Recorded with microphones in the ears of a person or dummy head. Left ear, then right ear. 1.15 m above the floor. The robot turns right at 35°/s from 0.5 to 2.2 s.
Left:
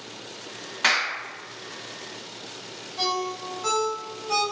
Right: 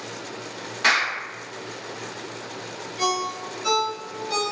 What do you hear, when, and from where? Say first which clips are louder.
0.8 s a clap: right 2 dB; 35° left (ahead or behind), 0.7 m; by 1.1 s 25° left (ahead or behind), 0.7 m
3.0 s a ringtone: right 2 dB; 45° left (ahead or behind), 0.9 m